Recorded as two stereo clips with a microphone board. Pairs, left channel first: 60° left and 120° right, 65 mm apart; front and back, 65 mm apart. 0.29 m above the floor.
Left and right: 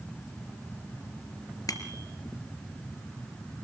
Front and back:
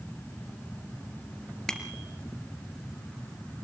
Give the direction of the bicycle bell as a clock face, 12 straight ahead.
9 o'clock.